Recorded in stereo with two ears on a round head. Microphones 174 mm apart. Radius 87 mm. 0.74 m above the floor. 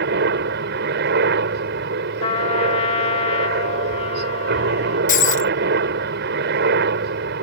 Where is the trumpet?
30° left (ahead or behind).